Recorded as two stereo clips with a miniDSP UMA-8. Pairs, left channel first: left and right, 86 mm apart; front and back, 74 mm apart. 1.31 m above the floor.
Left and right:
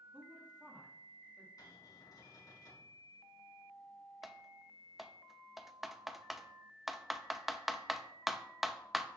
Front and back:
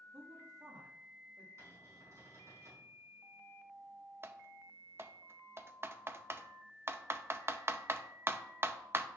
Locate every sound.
0.1 s a woman speaking: 170° right, 3 m
1.6 s a cupboard door: 130° left, 5 m
4.2 s typing on a keyboard: 175° right, 0.6 m